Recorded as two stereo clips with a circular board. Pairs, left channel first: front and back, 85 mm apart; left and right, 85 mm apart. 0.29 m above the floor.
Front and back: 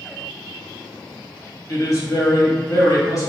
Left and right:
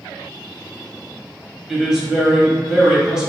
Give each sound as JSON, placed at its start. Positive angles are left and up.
{"t": 1.7, "sound": "a woman speaking", "azimuth_deg": -10, "distance_m": 1.6}